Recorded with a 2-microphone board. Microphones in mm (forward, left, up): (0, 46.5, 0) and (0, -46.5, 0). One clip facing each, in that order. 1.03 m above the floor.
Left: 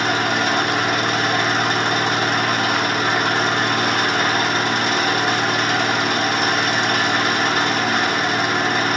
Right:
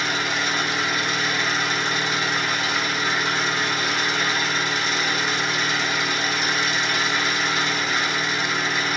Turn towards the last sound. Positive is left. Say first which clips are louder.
# left 6 dB
turn(degrees=65)  # may be behind; listen again after turning